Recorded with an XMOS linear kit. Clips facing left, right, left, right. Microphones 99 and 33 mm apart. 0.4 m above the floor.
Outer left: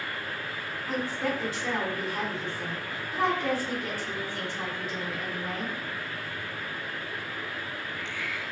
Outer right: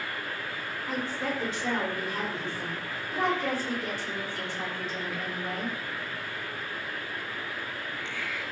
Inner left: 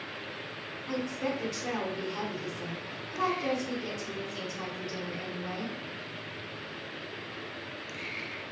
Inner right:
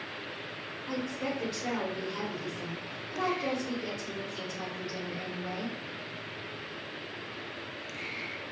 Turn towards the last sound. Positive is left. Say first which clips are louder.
# outer left 2 dB, inner left 2 dB
turn(degrees=-25)  # may be behind; listen again after turning